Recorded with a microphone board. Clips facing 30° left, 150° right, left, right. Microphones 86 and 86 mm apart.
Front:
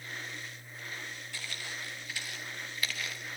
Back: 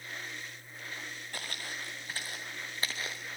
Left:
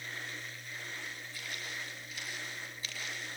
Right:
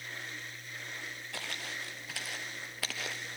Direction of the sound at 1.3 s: 105° right.